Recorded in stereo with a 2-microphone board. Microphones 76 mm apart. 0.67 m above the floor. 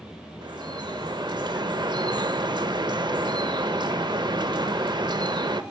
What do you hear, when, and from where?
0.4 s dripping: 70° right (ahead or behind), 0.6 m